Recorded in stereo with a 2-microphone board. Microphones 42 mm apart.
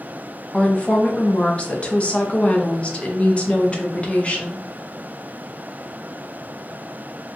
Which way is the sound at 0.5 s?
30° left (ahead or behind).